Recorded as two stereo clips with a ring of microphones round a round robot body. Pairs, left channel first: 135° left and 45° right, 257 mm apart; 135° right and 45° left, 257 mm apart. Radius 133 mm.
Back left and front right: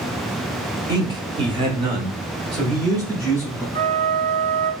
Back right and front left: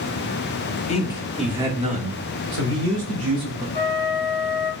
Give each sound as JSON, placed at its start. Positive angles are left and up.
{"t": 0.9, "sound": "a man speaking", "azimuth_deg": -105, "distance_m": 0.9}
{"t": 3.8, "sound": "a flute", "azimuth_deg": -75, "distance_m": 1.7}